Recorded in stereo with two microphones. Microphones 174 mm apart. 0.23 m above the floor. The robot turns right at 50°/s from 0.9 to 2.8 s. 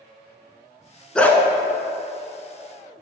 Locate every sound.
1.1 s a dog barking: 5° left (ahead or behind), 0.8 m; by 1.4 s 15° left (ahead or behind), 0.8 m